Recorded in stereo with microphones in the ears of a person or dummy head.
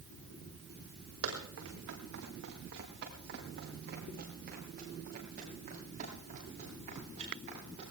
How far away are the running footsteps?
About 6.5 m.